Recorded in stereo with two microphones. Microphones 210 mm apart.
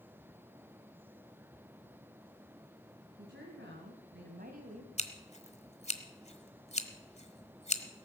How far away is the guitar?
No guitar in this recording.